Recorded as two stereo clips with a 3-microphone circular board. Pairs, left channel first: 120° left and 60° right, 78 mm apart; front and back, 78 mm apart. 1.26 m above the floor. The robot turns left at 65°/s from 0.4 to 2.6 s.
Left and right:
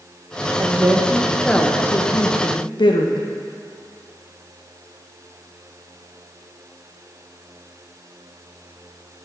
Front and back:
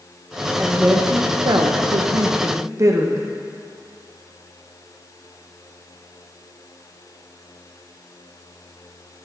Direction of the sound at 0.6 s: 100° right.